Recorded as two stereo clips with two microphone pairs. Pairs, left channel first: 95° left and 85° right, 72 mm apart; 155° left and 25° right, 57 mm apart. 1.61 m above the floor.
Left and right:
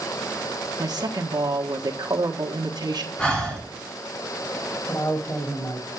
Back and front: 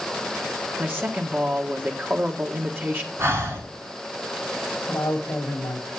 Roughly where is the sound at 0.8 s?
Right.